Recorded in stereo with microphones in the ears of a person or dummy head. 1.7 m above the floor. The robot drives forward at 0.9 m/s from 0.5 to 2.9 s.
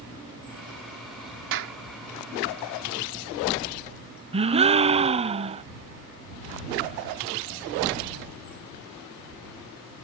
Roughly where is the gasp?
Right.